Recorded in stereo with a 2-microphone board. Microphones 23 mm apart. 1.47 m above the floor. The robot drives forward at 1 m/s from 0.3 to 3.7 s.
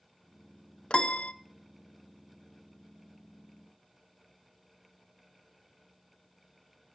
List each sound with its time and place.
0.9 s a piano: 45° left (ahead or behind), 0.6 m; by 1.3 s 50° left (ahead or behind), 0.6 m